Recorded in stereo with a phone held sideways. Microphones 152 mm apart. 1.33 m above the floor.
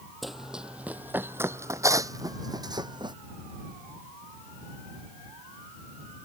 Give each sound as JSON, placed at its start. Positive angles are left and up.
{"t": 0.2, "sound": "running footsteps", "side_deg": 0}